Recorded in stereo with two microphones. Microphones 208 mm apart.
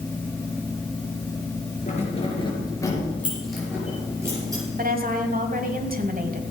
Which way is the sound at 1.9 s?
35° left (ahead or behind).